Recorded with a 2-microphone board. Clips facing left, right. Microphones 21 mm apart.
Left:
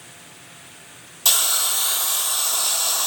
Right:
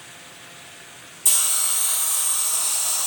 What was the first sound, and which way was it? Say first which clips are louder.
A hiss: left 3 dB; 50° left (ahead or behind).